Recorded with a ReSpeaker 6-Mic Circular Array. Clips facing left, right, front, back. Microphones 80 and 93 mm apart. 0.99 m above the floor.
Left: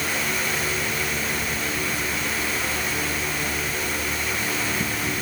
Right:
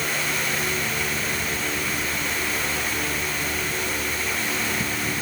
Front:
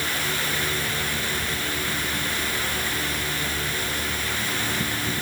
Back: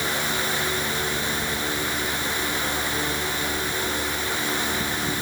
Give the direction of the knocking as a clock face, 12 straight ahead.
I don't hear knocking.